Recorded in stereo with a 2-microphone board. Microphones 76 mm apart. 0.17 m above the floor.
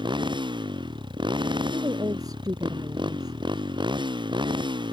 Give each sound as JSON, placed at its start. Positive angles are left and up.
{"t": 0.0, "sound": "a motorcycle", "side_deg": -90}
{"t": 1.7, "sound": "a woman speaking", "side_deg": -50}